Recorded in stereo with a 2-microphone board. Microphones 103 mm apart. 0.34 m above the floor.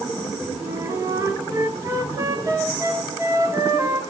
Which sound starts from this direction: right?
A flute, at 0.6 s.